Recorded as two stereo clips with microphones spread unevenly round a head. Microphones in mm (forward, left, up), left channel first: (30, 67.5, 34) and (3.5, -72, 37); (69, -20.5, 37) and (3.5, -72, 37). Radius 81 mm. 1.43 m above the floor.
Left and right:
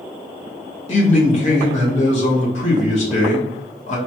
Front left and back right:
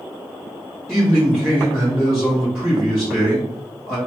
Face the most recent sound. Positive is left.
turn(degrees=125)